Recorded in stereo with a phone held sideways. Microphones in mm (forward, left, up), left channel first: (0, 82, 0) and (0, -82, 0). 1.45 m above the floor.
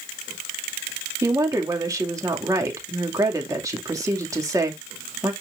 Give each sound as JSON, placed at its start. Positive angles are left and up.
{"t": 1.2, "sound": "a woman speaking", "side_deg": -20, "distance_m": 2.5}